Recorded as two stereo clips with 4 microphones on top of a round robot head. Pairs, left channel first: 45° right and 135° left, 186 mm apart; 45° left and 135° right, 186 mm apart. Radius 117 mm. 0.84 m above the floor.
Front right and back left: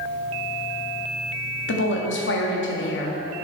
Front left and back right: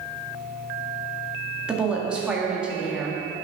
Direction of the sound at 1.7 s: 50° right.